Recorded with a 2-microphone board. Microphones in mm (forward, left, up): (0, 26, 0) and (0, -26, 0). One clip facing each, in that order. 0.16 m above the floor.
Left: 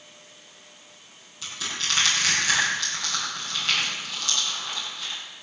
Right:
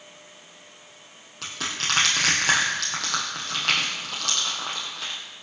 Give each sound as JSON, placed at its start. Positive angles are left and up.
{"t": 1.4, "sound": "crushing", "side_deg": -60, "distance_m": 5.0}